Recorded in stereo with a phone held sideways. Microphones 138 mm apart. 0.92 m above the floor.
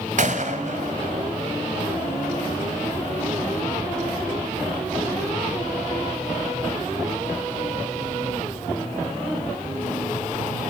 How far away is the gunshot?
About 2.5 m.